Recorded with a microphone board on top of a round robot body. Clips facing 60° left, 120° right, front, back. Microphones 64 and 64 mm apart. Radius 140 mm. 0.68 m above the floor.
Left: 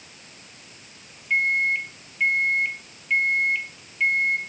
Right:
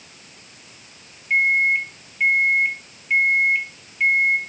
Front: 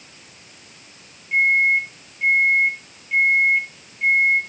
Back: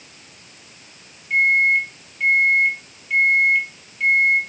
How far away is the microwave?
About 2.5 m.